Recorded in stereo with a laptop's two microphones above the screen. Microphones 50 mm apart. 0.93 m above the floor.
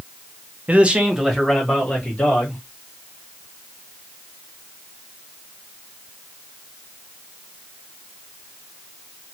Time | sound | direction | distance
0.7 | a man speaking | 35° right (ahead or behind) | 0.5 m